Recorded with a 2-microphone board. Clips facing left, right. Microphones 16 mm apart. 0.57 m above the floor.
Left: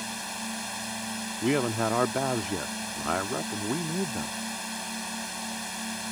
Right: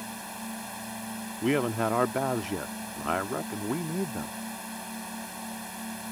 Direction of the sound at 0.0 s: 50° left (ahead or behind).